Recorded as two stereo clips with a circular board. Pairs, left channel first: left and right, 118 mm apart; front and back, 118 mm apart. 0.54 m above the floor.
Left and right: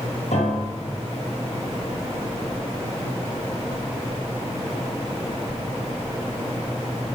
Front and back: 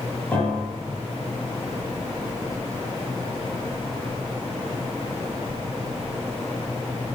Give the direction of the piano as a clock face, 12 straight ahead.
9 o'clock.